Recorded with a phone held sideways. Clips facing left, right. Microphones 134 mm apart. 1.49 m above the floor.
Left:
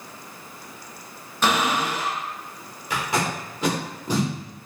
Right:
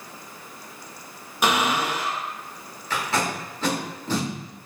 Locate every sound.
1.4 s a cupboard door: 10° right (ahead or behind), 0.9 m
2.9 s tape being pulled: 15° left (ahead or behind), 1.0 m